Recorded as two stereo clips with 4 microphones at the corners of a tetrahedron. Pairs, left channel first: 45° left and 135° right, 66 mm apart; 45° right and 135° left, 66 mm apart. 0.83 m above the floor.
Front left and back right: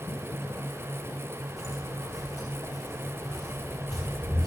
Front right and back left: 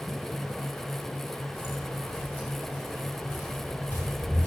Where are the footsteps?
10° left, 2.5 m; by 4.5 s 20° left, 4.5 m.